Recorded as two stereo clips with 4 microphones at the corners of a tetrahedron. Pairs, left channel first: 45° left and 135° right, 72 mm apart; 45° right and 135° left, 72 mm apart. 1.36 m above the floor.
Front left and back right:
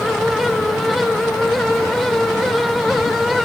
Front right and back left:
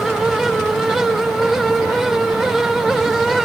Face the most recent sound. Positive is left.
No sound to turn to.